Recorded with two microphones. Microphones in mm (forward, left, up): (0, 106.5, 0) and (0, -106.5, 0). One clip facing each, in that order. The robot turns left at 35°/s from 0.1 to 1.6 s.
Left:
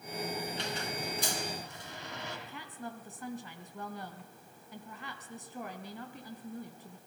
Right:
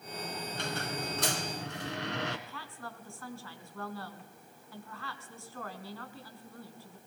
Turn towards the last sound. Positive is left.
turn(degrees=20)  # may be behind; listen again after turning